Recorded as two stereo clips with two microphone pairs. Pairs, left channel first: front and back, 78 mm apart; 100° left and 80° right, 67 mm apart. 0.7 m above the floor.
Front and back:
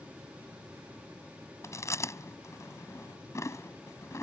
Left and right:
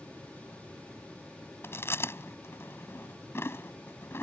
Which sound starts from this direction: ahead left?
Chewing, at 1.6 s.